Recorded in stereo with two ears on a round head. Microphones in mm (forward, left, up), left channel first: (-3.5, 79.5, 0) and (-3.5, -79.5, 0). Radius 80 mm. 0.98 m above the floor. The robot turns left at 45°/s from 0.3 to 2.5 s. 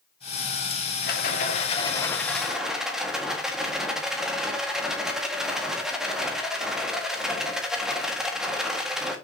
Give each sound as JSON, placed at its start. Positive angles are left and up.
{"t": 1.0, "sound": "a rattle", "azimuth_deg": 65, "distance_m": 1.8}